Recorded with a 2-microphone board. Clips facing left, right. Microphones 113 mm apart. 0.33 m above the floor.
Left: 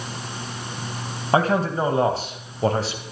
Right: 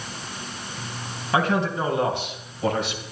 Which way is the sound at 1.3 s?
40° left (ahead or behind).